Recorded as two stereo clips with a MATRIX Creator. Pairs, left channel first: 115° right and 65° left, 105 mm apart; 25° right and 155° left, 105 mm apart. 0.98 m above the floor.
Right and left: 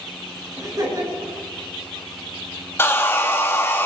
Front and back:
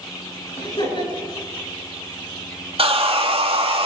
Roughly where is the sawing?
Behind.